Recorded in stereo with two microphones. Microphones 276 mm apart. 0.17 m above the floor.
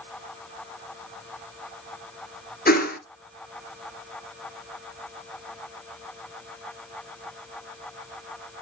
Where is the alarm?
I don't hear an alarm.